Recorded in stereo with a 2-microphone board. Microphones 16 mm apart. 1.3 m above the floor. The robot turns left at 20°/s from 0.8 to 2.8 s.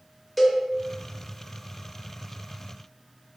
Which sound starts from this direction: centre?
A cowbell, at 0.4 s.